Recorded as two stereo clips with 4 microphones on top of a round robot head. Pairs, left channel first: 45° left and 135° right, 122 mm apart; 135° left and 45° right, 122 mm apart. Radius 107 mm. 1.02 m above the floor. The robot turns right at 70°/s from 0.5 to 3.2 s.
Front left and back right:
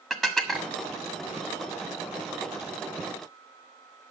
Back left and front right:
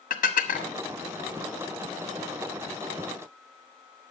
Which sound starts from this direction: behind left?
Dishes clattering, at 0.1 s.